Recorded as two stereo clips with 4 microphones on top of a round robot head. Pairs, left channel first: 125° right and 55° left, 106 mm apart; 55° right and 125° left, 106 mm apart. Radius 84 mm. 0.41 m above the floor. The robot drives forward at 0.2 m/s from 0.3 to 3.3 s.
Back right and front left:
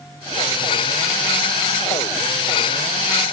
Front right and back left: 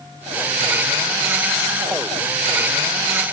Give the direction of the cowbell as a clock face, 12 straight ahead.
No cowbell in this recording.